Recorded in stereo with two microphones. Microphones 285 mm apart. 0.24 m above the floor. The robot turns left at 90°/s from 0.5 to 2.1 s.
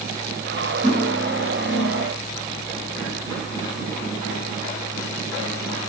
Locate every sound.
0.8 s cutlery clinking: 150° right, 1.4 m; by 2.1 s 95° left, 1.4 m